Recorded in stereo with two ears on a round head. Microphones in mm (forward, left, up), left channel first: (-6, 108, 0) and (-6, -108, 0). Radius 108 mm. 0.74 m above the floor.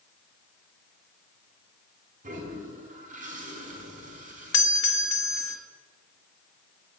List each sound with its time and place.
2.2 s a toilet flushing: 35° right (ahead or behind), 4 m
4.5 s a doorbell: 55° left (ahead or behind), 1.6 m